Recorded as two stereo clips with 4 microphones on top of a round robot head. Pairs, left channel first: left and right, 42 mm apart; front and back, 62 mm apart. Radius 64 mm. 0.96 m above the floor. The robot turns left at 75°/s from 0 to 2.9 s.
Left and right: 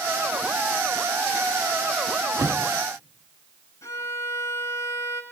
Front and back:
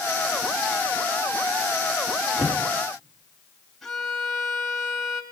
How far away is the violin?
About 4 m.